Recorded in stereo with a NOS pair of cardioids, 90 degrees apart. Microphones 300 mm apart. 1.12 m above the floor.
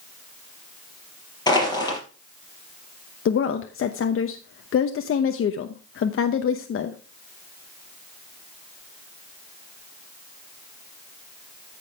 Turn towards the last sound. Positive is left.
turn(degrees=45)